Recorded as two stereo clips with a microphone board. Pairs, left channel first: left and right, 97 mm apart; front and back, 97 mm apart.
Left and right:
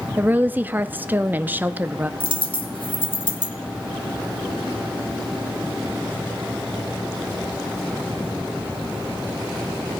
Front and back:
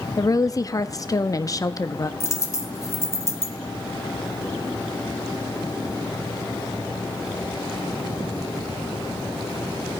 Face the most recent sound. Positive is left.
turn(degrees=60)